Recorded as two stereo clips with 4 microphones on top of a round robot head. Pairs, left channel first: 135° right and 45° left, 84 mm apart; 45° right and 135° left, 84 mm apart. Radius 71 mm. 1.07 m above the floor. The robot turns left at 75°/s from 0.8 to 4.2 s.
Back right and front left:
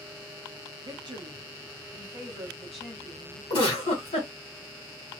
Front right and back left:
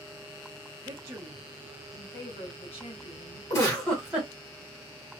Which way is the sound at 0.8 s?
95° left.